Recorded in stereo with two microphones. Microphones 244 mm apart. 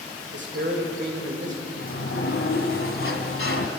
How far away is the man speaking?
About 1.9 m.